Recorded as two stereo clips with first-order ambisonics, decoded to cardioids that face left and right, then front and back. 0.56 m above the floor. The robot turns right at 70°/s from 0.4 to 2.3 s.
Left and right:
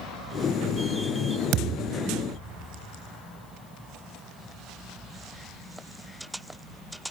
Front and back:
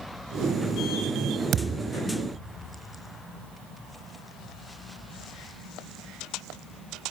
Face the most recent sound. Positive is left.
turn(degrees=-75)